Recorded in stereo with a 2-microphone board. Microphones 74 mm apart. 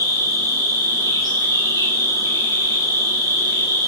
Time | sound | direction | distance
0.0 | an insect | 70° left (ahead or behind) | 4 m